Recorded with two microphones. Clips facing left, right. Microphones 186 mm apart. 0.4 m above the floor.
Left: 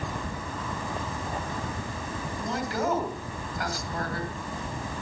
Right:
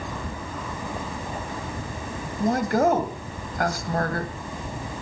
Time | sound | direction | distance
2.4 | a woman speaking | 60° right (ahead or behind) | 2.5 m